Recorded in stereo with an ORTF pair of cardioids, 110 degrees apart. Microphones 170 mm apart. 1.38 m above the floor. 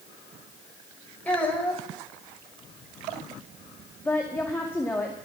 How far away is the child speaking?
About 5 m.